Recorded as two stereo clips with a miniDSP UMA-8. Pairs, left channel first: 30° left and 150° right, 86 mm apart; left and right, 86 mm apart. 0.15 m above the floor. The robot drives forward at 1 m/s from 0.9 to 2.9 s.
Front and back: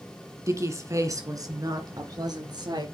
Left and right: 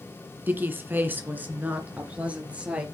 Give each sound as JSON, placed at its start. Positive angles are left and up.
{"t": 0.5, "sound": "a woman speaking", "azimuth_deg": -140, "distance_m": 2.0}